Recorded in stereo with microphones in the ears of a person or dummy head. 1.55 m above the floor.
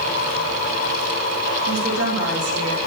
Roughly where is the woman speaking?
Right.